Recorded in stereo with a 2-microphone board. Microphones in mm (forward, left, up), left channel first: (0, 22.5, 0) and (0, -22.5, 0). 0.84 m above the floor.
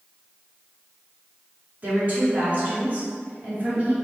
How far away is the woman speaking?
About 1.8 m.